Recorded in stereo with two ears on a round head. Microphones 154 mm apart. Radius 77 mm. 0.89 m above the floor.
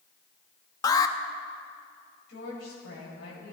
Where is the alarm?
20° left (ahead or behind), 0.6 m.